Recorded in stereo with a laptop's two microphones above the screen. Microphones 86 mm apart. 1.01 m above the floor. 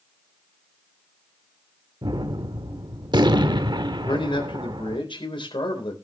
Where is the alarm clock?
No alarm clock in this recording.